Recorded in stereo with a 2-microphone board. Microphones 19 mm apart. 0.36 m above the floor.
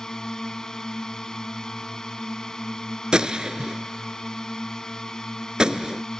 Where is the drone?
40° left (ahead or behind).